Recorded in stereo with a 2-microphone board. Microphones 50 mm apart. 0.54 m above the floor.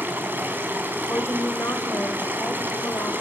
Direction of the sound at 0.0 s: 40° right (ahead or behind).